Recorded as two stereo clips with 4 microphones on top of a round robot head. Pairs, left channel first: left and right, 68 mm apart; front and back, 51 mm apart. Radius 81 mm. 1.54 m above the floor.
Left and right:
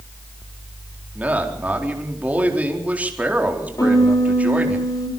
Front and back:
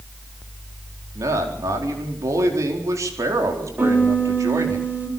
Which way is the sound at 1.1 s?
160° right.